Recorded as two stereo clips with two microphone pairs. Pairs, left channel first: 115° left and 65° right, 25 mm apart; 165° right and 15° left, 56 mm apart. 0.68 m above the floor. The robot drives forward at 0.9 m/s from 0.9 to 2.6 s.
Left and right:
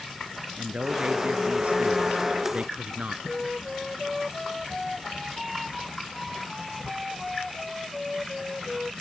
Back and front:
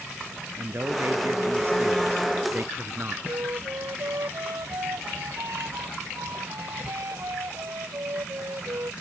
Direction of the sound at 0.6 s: 30° right.